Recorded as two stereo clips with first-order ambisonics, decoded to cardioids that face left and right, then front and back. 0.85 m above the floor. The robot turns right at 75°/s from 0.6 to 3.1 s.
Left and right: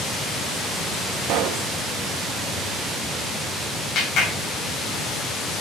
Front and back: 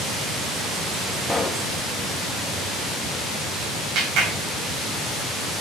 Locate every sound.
1.2 s a pop: 85° right, 0.8 m; by 1.7 s 50° right, 0.8 m
4.0 s a clap: 140° left, 3.5 m